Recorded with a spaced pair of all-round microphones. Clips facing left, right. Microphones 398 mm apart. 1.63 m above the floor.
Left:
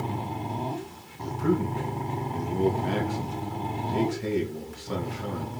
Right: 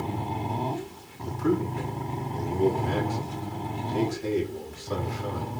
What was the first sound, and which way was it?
A man speaking, 90° left.